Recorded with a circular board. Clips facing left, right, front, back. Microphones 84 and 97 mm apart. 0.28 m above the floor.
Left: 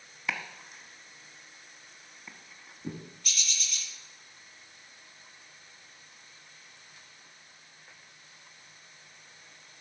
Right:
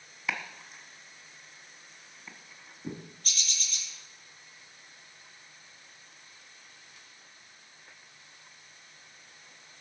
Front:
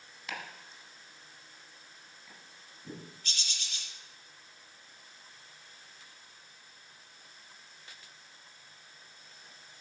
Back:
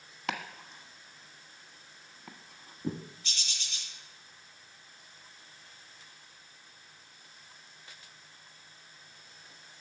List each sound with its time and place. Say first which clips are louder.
0.3 s chopping: even, back 6 dB; straight behind, 1.5 m
3.2 s a bird: left 1 dB, even; 45° right, 6 m